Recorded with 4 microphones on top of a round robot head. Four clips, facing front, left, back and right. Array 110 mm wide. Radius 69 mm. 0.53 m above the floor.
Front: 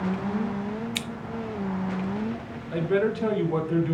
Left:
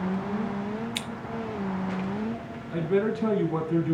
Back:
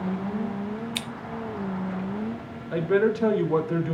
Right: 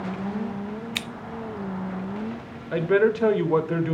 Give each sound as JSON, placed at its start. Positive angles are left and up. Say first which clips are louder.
{"t": 0.9, "sound": "scissors", "louder": "right 1 dB, even", "azimuth_deg": -80, "distance_m": 0.6}
{"t": 2.7, "sound": "a man speaking", "louder": "right 5 dB, back 2 dB", "azimuth_deg": -105, "distance_m": 1.9}